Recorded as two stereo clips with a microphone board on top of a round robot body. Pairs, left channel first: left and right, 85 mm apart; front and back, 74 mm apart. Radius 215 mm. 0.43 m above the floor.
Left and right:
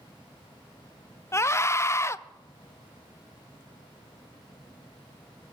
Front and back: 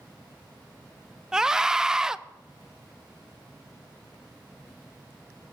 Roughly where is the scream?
Left.